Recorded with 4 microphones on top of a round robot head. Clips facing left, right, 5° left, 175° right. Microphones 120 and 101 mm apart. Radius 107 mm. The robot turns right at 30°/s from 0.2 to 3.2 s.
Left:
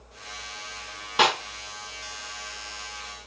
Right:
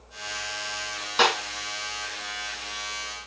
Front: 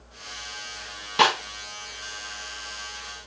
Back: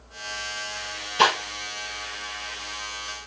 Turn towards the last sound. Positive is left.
turn(degrees=80)